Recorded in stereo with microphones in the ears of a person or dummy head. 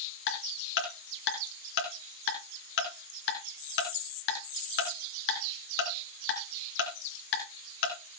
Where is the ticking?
65° left (ahead or behind), 2.5 m.